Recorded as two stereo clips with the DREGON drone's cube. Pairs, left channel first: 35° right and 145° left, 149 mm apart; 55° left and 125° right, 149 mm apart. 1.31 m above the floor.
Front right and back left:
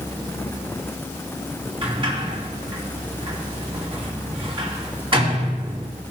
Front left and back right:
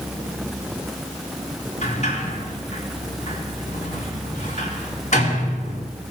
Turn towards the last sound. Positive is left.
turn(degrees=90)